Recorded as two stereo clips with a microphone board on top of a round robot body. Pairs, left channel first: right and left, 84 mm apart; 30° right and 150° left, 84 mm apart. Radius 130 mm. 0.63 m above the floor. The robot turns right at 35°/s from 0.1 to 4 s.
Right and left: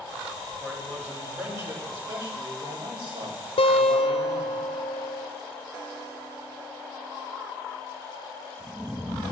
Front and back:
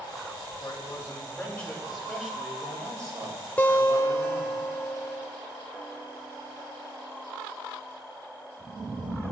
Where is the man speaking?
10° left, 4.5 m; by 4.6 s 130° left, 4.5 m.